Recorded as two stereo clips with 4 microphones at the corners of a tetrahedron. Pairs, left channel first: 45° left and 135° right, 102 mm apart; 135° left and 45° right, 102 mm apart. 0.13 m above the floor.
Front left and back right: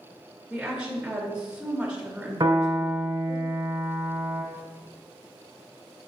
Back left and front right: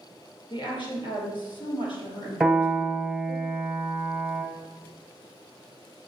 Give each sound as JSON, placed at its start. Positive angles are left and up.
{"t": 0.5, "sound": "a woman speaking", "azimuth_deg": 145, "distance_m": 2.0}
{"t": 2.4, "sound": "a piano", "azimuth_deg": -140, "distance_m": 1.4}